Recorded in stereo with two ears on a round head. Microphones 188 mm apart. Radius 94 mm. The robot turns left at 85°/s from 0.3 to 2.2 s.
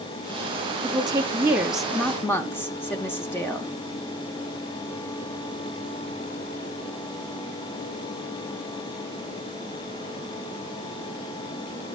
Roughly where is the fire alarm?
I don't hear a fire alarm.